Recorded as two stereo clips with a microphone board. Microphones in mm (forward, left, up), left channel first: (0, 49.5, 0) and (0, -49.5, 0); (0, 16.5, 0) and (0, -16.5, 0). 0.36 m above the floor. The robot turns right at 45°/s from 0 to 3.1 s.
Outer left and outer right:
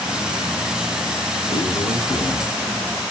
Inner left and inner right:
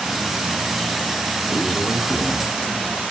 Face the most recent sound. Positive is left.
turn(degrees=140)